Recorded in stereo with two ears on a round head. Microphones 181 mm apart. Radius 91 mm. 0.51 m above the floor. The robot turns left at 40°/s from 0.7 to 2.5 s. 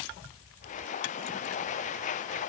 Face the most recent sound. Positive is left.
No sound to turn to.